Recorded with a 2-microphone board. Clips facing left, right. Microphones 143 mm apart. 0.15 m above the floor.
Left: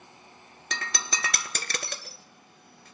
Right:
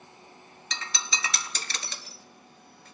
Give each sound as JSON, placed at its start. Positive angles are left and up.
{"t": 0.7, "sound": "breaking glass", "side_deg": 60, "distance_m": 0.7}